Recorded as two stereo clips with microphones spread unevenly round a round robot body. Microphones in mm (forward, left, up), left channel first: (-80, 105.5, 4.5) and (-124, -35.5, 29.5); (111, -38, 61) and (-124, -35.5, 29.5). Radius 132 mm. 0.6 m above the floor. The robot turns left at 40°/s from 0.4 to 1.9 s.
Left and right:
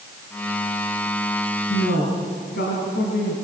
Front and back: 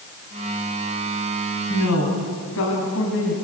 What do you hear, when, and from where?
1.7 s a woman speaking: 45° left, 4 m; by 3.3 s 40° left, 4 m